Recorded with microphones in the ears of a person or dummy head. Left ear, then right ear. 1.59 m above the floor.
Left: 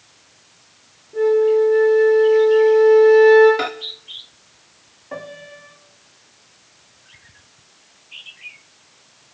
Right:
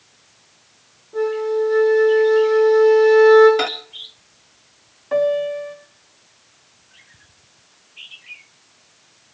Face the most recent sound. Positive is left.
turn(degrees=-35)  # may be behind; listen again after turning